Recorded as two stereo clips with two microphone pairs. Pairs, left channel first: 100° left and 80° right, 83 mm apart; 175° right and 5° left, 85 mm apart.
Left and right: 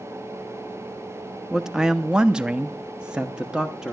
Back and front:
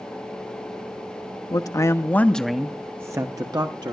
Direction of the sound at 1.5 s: 165° right.